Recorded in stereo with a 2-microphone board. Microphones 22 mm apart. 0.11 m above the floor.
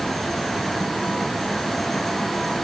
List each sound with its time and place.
Only background noise.